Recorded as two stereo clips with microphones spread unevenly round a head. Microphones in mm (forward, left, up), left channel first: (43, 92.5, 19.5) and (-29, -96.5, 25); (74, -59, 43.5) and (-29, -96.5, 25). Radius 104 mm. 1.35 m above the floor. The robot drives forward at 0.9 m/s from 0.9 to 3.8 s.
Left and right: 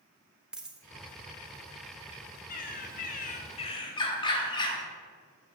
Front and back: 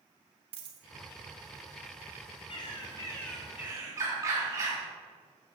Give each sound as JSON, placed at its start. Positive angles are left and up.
{"t": 0.5, "sound": "a dropped coin", "azimuth_deg": 165, "distance_m": 0.8}
{"t": 2.5, "sound": "a bird", "azimuth_deg": 30, "distance_m": 1.2}